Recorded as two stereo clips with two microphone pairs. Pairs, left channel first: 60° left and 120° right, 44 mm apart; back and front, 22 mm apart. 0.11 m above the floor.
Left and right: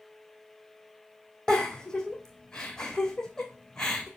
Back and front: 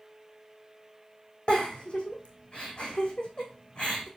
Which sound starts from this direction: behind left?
A giggle, at 1.5 s.